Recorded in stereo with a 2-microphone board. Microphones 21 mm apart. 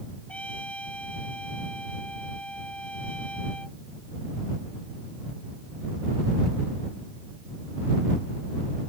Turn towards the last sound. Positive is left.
turn(degrees=65)  # may be behind; listen again after turning